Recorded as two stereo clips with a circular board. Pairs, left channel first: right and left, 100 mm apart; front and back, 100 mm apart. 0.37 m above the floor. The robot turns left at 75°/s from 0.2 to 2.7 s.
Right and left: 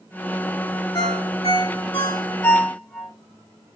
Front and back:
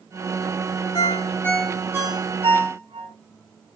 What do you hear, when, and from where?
0.9 s a ringtone: 35° right, 2.5 m; by 3.1 s 165° right, 2.5 m